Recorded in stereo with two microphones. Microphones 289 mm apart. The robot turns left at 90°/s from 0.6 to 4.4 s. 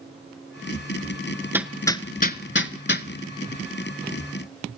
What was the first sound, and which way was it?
Hammering, 10° right (ahead or behind).